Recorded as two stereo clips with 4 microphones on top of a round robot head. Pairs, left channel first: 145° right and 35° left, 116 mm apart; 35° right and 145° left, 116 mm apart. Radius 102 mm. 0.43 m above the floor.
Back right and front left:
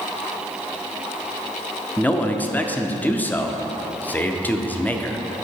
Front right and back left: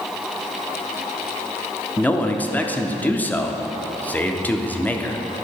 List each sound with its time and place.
2.0 s a man speaking: 90° right, 0.7 m